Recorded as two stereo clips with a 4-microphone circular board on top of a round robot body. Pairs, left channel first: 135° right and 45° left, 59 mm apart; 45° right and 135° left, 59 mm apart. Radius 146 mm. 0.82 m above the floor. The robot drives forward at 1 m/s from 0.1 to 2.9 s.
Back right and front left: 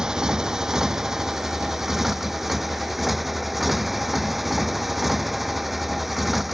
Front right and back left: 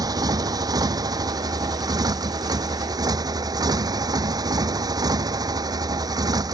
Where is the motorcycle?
125° left; by 6.5 s 135° left.